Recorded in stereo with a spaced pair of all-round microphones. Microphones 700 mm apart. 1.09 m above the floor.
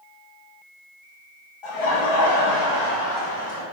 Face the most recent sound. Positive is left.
turn(degrees=55)  # may be behind; listen again after turning